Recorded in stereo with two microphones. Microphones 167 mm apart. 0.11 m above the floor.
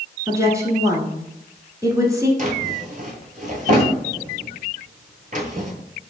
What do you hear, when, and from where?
0.3 s a woman speaking: 20° right (ahead or behind), 1.1 m
2.4 s a drawer: 50° right (ahead or behind), 0.9 m